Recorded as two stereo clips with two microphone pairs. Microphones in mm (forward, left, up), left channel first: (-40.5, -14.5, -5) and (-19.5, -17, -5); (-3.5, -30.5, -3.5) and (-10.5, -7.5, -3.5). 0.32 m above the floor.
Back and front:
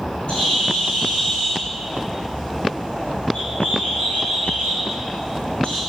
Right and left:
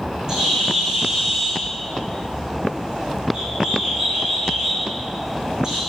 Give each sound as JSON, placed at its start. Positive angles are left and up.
{"t": 0.3, "sound": "a bird", "azimuth_deg": 160, "distance_m": 4.5}